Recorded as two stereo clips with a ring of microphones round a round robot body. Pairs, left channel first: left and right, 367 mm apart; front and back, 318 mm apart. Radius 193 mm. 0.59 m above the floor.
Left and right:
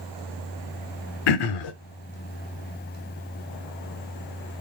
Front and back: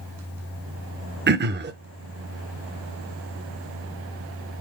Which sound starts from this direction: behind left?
Throat clearing, at 1.3 s.